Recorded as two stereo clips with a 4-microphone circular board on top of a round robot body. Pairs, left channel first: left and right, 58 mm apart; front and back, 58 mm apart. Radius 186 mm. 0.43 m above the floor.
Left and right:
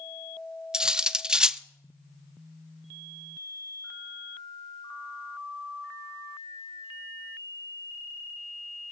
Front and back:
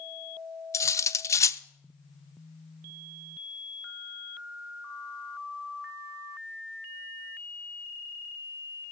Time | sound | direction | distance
0.7 | cutlery clinking | 15° right | 0.5 m